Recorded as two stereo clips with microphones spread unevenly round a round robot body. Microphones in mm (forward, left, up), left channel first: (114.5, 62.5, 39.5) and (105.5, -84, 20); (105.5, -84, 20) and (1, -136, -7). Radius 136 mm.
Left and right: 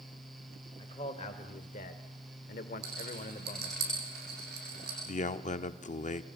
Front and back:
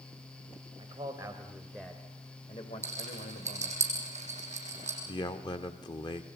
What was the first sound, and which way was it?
A man speaking, 150° left.